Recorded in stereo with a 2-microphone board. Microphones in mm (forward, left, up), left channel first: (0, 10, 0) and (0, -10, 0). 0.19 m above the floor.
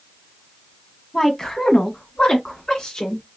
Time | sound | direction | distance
1.1 | a woman speaking | 25° left (ahead or behind) | 1.2 m